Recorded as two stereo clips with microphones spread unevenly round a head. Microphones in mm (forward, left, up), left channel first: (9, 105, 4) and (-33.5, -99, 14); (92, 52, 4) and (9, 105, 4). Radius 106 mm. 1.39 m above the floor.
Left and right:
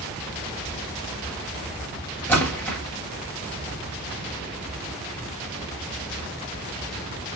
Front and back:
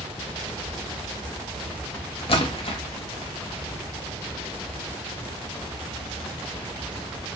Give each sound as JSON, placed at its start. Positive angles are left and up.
{"t": 2.3, "sound": "a splash", "azimuth_deg": -5, "distance_m": 0.9}